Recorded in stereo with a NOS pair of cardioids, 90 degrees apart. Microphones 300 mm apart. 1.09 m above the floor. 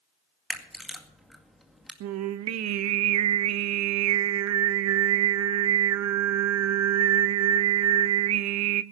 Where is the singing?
65° right, 0.8 m.